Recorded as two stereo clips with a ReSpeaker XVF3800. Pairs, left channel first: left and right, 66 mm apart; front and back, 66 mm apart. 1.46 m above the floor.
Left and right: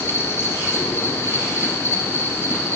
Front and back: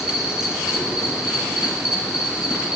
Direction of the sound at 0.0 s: 105° left.